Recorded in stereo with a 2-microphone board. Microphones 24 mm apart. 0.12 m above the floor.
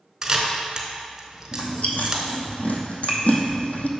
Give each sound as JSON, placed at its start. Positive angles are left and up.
{"t": 0.2, "sound": "a camera shutter", "side_deg": -20, "distance_m": 0.9}
{"t": 1.5, "sound": "chewing", "side_deg": 75, "distance_m": 0.9}